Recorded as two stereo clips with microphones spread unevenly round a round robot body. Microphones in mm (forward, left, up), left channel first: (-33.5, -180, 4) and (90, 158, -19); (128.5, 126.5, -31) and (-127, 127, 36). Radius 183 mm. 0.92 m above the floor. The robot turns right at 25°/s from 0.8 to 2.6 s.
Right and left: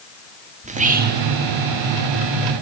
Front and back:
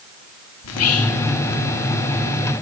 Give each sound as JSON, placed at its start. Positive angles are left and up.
{"t": 0.6, "sound": "whispering", "azimuth_deg": 0, "distance_m": 1.3}